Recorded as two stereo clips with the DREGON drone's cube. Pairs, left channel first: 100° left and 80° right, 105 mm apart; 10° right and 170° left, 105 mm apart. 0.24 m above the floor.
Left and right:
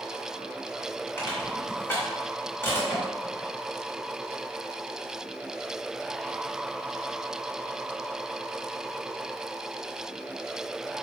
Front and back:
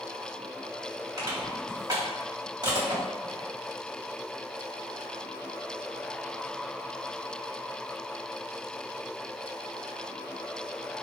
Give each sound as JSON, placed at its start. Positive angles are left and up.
{"t": 1.2, "sound": "crushing", "azimuth_deg": 155, "distance_m": 1.8}